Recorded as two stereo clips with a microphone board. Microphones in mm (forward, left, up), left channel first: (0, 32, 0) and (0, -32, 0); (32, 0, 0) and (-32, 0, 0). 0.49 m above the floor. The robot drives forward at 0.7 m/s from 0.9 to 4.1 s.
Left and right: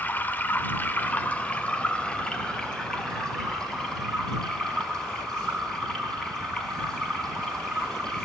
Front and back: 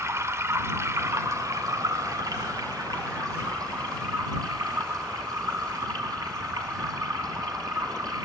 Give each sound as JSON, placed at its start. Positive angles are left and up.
{"t": 0.0, "sound": "running water", "azimuth_deg": 145, "distance_m": 1.0}